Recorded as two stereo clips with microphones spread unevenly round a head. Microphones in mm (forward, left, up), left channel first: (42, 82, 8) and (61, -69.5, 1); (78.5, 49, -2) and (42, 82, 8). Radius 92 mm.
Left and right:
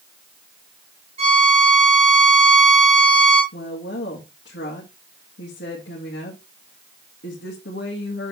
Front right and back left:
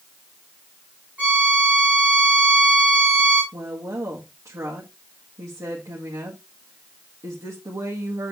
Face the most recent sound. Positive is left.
turn(degrees=125)